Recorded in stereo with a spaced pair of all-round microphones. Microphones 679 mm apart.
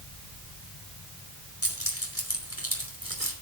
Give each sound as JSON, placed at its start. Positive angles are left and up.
{"t": 1.6, "sound": "keys jangling", "side_deg": 20, "distance_m": 4.5}